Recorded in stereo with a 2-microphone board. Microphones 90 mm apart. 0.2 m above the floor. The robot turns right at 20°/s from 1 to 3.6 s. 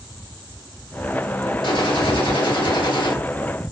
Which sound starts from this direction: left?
A gunshot, at 1.6 s.